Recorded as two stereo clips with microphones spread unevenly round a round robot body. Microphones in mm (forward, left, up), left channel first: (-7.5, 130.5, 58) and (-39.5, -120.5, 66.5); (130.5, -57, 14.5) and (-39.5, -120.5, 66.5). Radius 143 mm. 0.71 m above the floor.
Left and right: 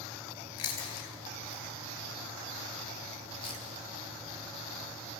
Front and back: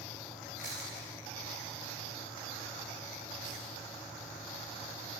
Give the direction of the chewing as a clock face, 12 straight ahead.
8 o'clock.